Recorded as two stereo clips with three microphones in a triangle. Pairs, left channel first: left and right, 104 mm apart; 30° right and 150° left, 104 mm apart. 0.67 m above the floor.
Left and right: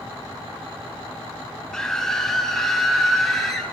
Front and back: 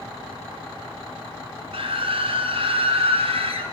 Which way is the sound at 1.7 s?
175° left.